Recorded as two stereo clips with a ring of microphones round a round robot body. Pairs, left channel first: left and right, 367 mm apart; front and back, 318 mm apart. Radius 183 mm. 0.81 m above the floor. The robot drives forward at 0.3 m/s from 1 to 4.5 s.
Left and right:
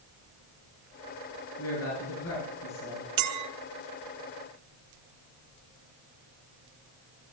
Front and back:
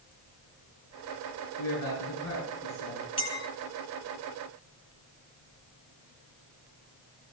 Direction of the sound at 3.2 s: 75° right.